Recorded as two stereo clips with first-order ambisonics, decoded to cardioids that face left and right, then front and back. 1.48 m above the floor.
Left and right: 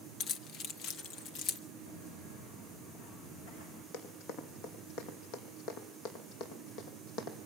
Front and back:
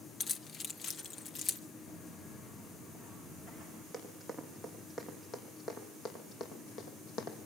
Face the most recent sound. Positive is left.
turn(degrees=45)